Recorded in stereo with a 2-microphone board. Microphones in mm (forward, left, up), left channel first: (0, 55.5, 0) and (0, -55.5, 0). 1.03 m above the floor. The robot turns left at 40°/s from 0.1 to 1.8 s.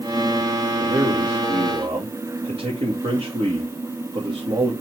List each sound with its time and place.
0.8 s a man speaking: 60° right, 2 m; by 4.7 s 100° right, 2 m